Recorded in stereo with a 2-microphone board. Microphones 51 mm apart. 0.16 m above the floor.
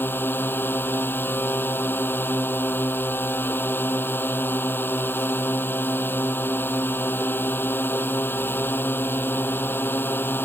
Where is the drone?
45° left (ahead or behind).